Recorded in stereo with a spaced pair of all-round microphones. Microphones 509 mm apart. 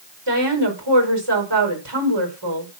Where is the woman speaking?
55° right (ahead or behind), 5 m.